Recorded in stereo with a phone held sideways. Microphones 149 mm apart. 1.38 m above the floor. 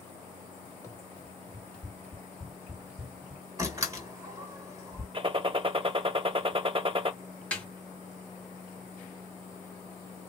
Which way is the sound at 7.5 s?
10° left (ahead or behind).